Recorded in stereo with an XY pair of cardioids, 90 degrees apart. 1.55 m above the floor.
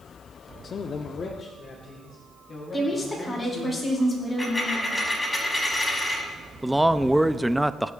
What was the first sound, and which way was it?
A man speaking, 55° left.